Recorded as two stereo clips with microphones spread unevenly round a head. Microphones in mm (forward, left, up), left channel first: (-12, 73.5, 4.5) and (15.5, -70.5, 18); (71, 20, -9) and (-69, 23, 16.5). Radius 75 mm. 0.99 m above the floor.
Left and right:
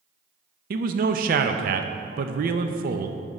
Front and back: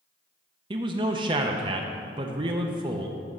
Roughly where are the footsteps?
I don't hear footsteps.